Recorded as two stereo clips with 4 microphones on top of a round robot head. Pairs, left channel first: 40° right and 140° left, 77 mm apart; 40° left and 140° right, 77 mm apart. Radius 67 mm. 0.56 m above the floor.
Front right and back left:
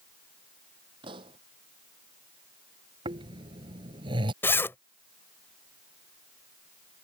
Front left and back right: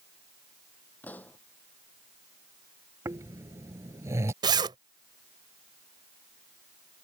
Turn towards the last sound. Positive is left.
turn(degrees=-105)